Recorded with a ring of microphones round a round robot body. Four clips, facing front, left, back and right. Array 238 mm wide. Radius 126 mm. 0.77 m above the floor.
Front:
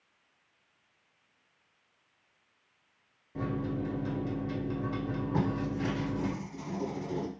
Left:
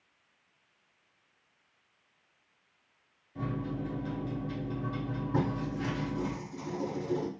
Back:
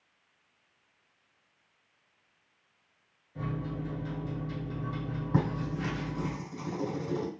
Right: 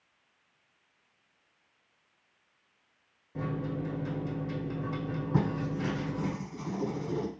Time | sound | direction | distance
3.4 | a microwave | 50° right | 1.1 m
5.3 | writing | 175° right | 1.6 m